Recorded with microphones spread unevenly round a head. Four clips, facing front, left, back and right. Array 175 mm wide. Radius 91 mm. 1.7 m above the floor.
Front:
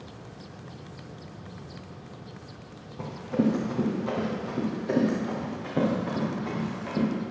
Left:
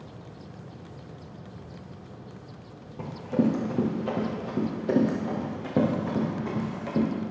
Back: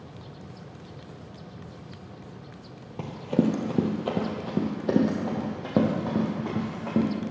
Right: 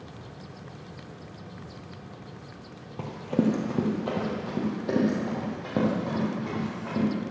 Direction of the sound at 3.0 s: 175° right.